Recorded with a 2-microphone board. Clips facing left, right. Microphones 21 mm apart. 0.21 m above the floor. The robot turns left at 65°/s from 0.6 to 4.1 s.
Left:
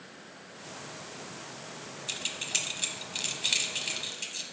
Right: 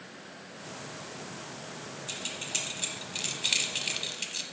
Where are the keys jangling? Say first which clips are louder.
Left 3 dB; 25° left (ahead or behind), 0.8 m; by 4.4 s 20° right (ahead or behind), 0.8 m.